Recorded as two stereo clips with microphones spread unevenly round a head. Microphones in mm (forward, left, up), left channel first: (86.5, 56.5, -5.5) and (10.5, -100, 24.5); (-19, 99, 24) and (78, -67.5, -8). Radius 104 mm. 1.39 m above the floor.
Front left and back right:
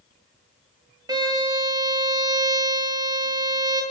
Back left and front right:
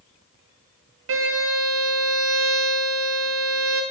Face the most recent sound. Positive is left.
turn(degrees=-55)